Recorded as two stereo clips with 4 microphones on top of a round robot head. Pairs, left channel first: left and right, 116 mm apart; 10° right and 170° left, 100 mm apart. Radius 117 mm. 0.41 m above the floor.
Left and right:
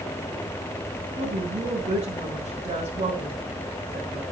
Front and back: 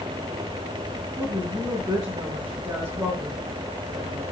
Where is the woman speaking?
100° right, 4 m.